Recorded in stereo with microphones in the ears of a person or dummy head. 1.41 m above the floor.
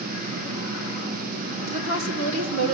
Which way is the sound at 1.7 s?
80° right.